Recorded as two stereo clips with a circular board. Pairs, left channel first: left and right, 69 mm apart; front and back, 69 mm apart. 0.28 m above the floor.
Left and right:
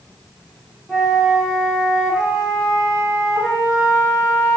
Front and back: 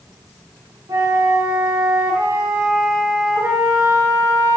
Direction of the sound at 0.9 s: 170° right.